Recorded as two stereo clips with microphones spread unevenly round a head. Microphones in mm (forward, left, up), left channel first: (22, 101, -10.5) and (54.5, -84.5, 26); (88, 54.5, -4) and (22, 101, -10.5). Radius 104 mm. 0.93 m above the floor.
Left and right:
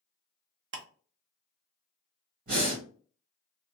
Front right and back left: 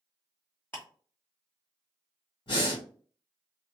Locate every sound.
0.7 s ticking: 115° right, 0.7 m
2.5 s breathing: 40° right, 1.7 m